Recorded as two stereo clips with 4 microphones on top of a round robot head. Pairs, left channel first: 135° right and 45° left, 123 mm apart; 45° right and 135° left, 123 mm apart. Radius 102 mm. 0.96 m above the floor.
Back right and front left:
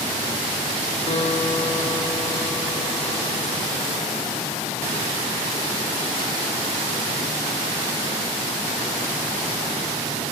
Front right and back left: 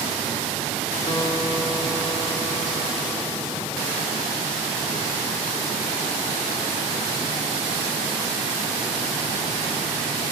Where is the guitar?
100° right, 7 m.